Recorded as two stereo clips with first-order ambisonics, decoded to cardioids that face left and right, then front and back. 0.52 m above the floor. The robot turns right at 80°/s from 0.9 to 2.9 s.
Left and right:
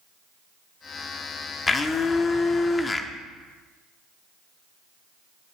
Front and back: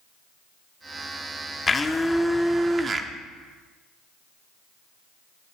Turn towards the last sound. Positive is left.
turn(degrees=145)